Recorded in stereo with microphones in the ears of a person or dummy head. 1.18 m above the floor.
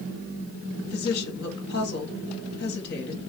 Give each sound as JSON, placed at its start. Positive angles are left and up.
{"t": 0.8, "sound": "a woman speaking", "side_deg": 55, "distance_m": 0.9}